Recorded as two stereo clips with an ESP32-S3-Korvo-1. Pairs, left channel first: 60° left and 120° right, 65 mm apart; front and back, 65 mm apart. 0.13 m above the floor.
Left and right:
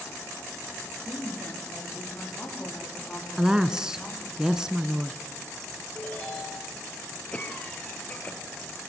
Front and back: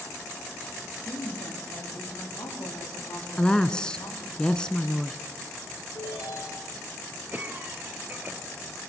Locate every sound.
1.1 s a woman speaking: straight ahead, 8.5 m; by 4.4 s 15° right, 9.5 m
3.4 s a woman speaking: 55° right, 1.2 m
6.0 s a ringtone: 5° right, 9.5 m
7.3 s a cough: 125° left, 3 m